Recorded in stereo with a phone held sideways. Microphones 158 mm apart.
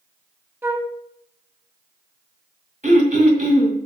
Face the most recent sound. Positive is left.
turn(degrees=-50)  # may be behind; listen again after turning